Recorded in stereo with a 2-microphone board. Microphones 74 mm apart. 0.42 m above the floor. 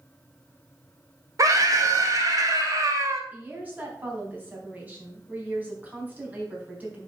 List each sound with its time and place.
1.4 s a scream: 50° right (ahead or behind), 2.0 m
3.3 s a woman speaking: 25° right (ahead or behind), 3.5 m